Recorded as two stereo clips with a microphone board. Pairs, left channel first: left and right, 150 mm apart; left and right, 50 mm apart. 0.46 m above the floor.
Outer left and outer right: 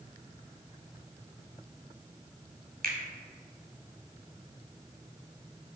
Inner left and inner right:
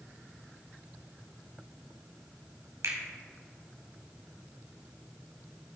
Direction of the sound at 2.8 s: 70° right (ahead or behind).